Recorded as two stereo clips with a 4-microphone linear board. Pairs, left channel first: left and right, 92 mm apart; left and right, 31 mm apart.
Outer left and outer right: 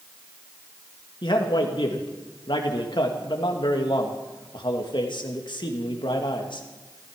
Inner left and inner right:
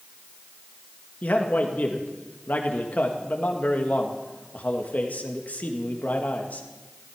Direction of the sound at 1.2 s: 55° left (ahead or behind).